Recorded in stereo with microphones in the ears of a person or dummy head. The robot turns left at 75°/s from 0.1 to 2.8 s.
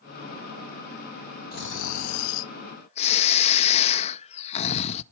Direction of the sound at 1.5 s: 135° left.